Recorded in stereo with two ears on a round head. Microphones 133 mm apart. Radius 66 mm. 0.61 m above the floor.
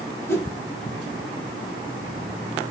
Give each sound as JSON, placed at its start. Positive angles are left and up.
{"t": 0.3, "sound": "a whoosh", "side_deg": 15, "distance_m": 0.8}